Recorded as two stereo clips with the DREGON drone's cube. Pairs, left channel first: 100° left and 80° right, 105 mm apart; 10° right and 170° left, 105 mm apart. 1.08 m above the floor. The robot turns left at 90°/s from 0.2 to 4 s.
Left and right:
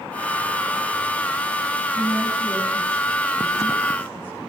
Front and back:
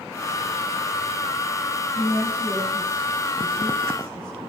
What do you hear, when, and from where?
1.9 s a woman speaking: 140° right, 8 m; by 4.4 s 35° left, 8 m